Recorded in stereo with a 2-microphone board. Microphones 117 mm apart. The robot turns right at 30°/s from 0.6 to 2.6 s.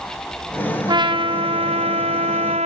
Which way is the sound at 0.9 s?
140° right.